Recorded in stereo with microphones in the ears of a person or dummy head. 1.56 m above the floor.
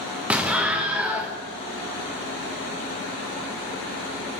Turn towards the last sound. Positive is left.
turn(degrees=-5)  # may be behind; listen again after turning